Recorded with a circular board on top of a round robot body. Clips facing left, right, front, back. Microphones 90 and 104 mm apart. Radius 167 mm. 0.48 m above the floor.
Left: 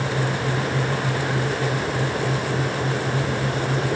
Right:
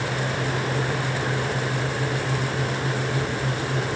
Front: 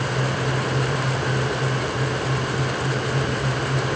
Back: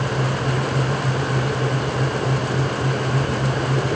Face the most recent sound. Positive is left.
No sound to turn to.